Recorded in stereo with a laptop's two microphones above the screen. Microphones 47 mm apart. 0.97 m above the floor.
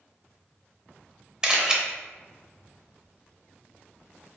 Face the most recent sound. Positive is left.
turn(degrees=-15)  # may be behind; listen again after turning